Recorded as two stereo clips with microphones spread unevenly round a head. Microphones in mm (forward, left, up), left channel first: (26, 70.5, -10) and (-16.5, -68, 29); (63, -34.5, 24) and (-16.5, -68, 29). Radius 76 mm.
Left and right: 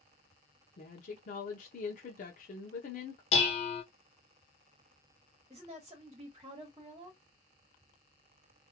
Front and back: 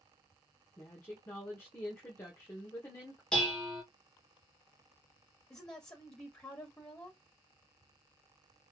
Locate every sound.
0.8 s a woman speaking: 85° left, 0.7 m
3.3 s dishes clattering: 105° left, 0.7 m
5.5 s a woman speaking: 45° right, 1.0 m